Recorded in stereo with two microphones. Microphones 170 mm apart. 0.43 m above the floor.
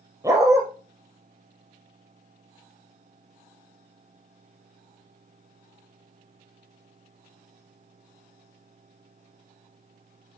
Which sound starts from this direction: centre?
A dog barking, at 0.2 s.